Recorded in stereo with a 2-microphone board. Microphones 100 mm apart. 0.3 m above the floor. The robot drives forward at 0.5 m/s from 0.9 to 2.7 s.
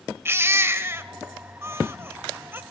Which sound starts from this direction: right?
A baby crying, at 0.2 s.